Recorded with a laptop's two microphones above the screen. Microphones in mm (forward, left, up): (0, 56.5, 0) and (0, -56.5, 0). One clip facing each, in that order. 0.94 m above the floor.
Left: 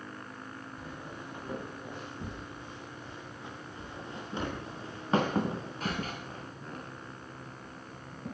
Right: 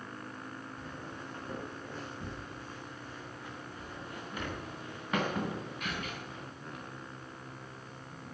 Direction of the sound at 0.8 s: 15° left (ahead or behind).